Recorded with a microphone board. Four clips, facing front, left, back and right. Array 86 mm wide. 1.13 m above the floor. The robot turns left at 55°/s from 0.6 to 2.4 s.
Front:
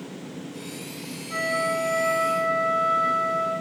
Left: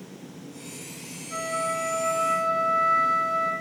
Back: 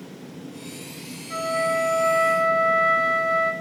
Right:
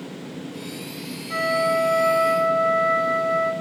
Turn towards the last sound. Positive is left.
turn(degrees=-170)